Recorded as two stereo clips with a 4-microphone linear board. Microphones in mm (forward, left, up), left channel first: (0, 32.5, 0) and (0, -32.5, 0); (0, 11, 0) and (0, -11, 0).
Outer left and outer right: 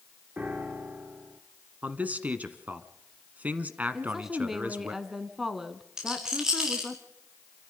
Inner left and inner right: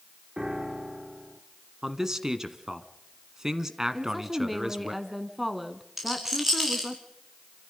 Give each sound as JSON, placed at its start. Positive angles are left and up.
{"t": 0.4, "sound": "a piano", "side_deg": -25, "distance_m": 1.4}
{"t": 1.8, "sound": "a man speaking", "side_deg": -25, "distance_m": 1.2}
{"t": 3.9, "sound": "a woman speaking", "side_deg": -5, "distance_m": 1.2}
{"t": 6.0, "sound": "a rattle", "side_deg": -10, "distance_m": 5.0}